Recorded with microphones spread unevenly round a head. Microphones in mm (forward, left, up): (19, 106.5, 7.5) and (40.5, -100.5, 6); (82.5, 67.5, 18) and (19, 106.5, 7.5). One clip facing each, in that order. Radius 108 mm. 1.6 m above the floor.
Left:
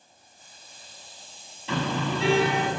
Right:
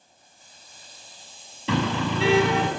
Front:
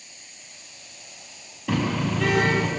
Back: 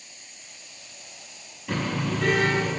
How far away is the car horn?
About 6 m.